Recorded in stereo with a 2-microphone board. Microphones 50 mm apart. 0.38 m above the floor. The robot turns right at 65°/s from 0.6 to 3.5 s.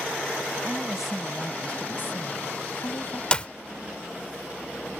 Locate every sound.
0.6 s a woman speaking: 35° right; by 3.2 s 135° left
3.3 s a clap: 20° left (ahead or behind); by 3.5 s 25° left (ahead or behind)